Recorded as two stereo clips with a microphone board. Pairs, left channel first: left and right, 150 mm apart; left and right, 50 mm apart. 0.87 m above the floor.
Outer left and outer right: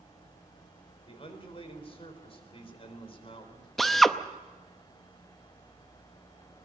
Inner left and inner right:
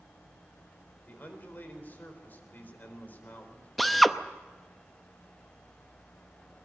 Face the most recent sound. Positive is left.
turn(degrees=0)  # may be behind; listen again after turning